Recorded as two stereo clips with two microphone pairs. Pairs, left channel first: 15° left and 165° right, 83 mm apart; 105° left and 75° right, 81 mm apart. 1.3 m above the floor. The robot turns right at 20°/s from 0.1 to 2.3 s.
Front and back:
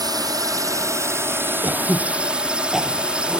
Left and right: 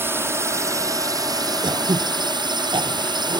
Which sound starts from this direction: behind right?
A drone, at 0.0 s.